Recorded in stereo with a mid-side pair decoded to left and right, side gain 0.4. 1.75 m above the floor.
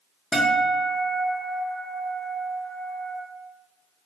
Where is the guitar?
Straight ahead, 0.7 m.